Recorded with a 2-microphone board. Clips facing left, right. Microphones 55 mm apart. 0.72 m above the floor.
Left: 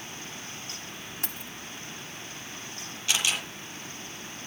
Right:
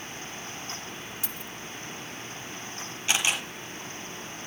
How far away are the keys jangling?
About 1.0 m.